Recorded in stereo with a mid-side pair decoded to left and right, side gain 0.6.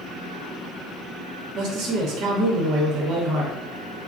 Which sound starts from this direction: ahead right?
A man speaking, at 1.6 s.